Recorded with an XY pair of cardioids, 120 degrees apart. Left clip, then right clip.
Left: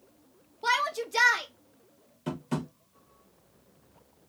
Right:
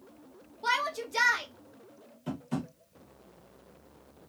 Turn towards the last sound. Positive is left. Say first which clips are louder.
# left 3 dB
turn(degrees=40)